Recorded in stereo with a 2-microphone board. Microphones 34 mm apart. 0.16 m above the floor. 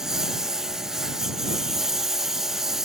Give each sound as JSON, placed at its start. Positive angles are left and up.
{"t": 0.0, "sound": "a lawn mower", "side_deg": -15}